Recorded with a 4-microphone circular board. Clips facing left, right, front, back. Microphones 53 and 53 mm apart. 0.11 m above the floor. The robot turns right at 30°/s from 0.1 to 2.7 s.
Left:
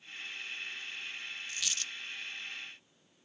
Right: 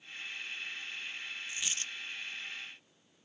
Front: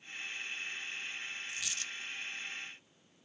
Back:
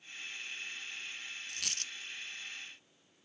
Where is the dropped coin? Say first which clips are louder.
Even, front 2 dB; 160° right, 0.6 m; by 1.9 s 145° right, 0.6 m.